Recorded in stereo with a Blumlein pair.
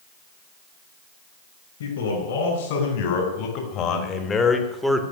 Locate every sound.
1.8 s a man speaking: 60° left, 5 m; by 5.0 s 5° right, 2 m